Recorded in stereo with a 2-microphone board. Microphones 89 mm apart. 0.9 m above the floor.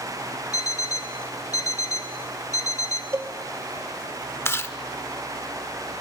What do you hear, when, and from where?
0.5 s an alarm clock: 45° left (ahead or behind), 1.6 m
3.1 s a cowbell: 35° right (ahead or behind), 0.8 m
4.5 s chewing: 30° left (ahead or behind), 0.7 m